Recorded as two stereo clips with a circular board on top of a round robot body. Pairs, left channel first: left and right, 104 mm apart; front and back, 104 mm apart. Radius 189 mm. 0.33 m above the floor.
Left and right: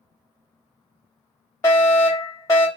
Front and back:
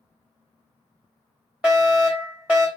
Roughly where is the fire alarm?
Behind left.